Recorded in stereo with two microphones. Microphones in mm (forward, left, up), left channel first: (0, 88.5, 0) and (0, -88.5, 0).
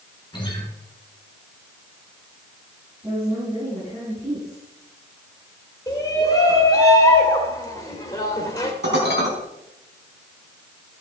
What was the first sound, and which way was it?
A guitar, 25° left (ahead or behind).